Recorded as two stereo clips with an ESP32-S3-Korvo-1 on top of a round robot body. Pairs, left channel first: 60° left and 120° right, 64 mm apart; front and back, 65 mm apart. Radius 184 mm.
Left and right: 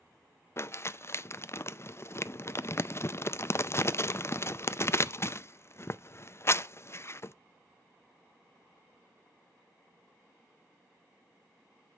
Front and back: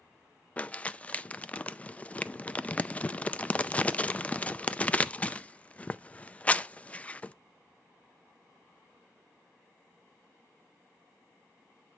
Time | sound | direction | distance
0.6 | crumpling | 55° left | 0.7 m